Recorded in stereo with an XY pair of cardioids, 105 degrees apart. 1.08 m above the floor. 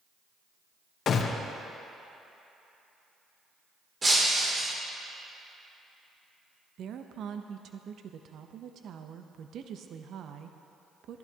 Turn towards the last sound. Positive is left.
turn(degrees=-65)